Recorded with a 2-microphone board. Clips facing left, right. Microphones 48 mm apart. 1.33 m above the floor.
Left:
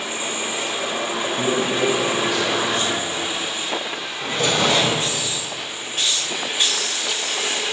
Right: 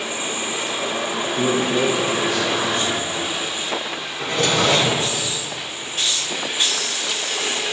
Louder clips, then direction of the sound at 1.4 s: Right 2 dB; 40° right (ahead or behind).